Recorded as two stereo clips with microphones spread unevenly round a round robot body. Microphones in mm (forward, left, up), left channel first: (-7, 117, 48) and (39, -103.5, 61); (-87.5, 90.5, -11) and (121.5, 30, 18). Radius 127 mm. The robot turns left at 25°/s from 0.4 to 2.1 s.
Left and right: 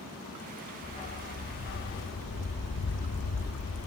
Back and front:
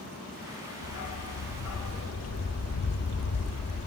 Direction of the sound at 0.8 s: 170° left.